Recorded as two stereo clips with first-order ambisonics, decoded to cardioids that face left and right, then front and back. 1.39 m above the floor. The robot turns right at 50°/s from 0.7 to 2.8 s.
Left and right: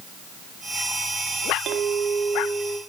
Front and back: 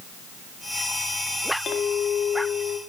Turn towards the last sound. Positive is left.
turn(degrees=0)